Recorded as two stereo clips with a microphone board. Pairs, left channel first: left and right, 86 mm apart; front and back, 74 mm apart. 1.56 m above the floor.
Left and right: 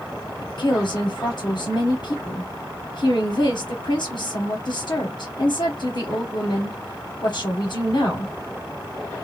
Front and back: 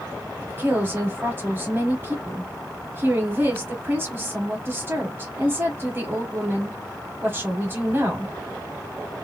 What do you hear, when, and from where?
0.4 s a woman speaking: 120° left, 1.0 m